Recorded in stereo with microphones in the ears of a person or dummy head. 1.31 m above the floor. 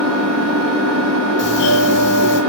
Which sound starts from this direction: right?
An engine running, at 0.0 s.